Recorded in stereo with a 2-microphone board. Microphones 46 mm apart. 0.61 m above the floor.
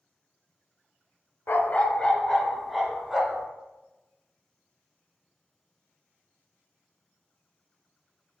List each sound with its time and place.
1.5 s a dog barking: 55° left (ahead or behind), 0.7 m; by 3.5 s 5° right (ahead or behind), 2.5 m